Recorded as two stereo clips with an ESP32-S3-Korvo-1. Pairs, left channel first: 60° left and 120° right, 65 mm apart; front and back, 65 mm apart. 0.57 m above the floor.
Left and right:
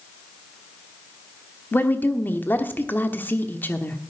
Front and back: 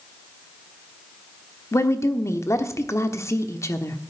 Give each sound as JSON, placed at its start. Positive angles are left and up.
{"t": 1.7, "sound": "a woman speaking", "azimuth_deg": 10, "distance_m": 1.1}